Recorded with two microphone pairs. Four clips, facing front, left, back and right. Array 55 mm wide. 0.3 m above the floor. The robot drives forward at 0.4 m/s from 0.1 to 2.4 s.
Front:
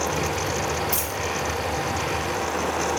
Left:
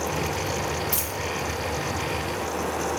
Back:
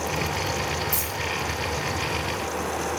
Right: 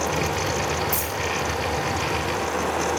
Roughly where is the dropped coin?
Ahead left.